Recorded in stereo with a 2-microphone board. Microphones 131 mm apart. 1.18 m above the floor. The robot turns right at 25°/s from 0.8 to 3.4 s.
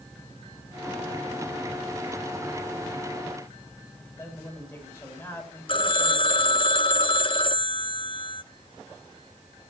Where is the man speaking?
15° left (ahead or behind), 6.5 m.